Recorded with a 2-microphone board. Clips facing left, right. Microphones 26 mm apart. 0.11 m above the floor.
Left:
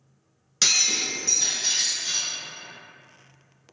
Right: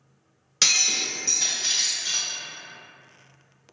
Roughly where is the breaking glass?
Centre.